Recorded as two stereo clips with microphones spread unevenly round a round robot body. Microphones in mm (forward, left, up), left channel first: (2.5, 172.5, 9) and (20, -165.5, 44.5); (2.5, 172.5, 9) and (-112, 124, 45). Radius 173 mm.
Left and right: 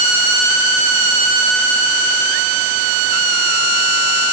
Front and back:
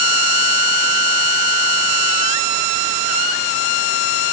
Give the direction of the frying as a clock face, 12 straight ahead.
No frying in this recording.